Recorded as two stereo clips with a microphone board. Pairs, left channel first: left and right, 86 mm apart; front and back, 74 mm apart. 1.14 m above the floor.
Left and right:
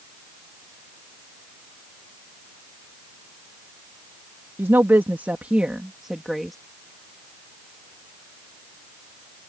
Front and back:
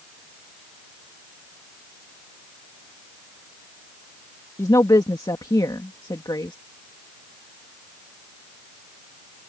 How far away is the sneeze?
No sneeze in this recording.